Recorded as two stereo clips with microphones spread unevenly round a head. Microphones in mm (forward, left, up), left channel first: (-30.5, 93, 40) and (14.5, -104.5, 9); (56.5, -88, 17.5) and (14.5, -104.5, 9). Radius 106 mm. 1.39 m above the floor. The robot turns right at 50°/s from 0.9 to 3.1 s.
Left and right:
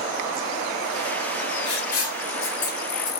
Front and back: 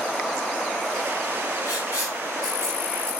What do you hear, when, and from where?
1.6 s writing: 65° left, 3 m; by 3.1 s 135° left, 3 m